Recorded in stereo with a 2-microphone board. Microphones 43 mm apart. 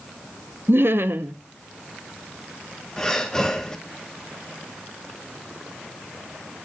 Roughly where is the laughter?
Right.